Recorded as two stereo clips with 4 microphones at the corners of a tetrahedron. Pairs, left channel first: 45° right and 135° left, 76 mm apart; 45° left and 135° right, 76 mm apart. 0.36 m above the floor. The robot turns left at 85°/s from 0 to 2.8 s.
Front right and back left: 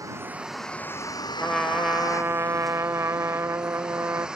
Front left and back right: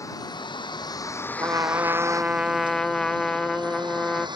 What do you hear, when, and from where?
0.0 s a vehicle: 90° left; by 4.4 s 145° right
1.4 s a trumpet: 115° right; by 4.3 s 125° left